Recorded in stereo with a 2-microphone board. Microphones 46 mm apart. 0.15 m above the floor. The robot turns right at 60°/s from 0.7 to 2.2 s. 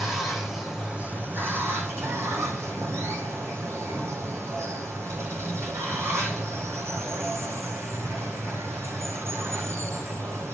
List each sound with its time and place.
0.0 s running water: 170° right, 1.4 m; by 10.5 s 80° right, 1.4 m